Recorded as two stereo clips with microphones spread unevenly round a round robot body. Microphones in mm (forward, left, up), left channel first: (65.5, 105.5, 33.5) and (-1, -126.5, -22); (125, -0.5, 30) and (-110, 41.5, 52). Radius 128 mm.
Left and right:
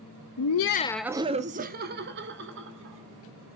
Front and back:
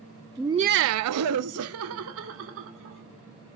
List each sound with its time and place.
0.4 s laughter: 80° left, 0.6 m; by 3.0 s 150° right, 3 m